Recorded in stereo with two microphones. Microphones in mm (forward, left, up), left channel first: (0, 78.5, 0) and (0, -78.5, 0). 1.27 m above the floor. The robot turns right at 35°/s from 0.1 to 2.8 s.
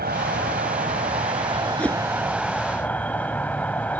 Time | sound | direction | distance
0.0 | an insect | 85° right | ?
1.8 | a whoosh | 5° left (ahead or behind) | ?